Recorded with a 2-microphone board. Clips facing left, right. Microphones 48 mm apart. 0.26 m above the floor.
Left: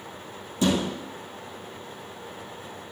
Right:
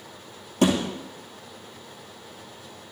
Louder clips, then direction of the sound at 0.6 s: Right 2 dB; 55° right (ahead or behind).